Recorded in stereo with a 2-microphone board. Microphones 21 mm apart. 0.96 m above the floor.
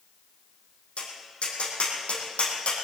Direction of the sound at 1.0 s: 65° left (ahead or behind).